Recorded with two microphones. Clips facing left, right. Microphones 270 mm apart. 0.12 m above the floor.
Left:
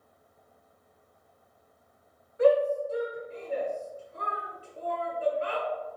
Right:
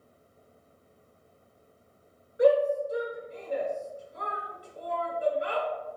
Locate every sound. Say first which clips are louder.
2.4 s a shout: even; 15° right (ahead or behind), 1.4 m